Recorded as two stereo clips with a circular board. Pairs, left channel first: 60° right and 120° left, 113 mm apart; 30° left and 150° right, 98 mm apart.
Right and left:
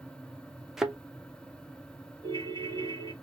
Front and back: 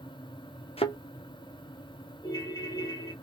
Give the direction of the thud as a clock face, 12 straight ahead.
11 o'clock.